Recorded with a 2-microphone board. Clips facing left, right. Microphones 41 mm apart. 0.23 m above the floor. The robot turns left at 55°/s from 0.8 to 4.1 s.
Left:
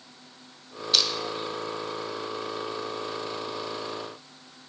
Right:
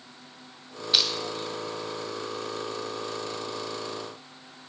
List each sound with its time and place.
0.9 s crushing: 15° right (ahead or behind), 0.6 m